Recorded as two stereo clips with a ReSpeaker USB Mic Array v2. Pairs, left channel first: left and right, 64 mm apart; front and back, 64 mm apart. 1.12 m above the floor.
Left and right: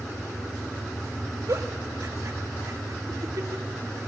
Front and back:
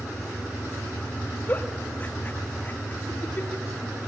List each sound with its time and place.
1.5 s a giggle: 60° right, 2 m